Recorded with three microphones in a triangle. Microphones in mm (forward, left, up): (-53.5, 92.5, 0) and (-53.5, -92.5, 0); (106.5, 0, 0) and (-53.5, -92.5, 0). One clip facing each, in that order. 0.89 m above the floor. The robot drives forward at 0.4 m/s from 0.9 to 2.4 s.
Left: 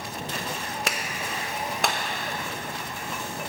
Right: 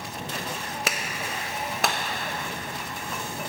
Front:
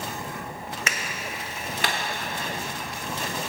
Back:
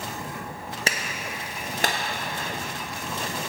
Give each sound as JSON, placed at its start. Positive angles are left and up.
{"t": 0.9, "sound": "a clap", "azimuth_deg": -175, "distance_m": 0.8}